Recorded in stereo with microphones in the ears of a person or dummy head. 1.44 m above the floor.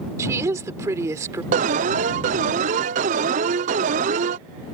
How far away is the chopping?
No chopping in this recording.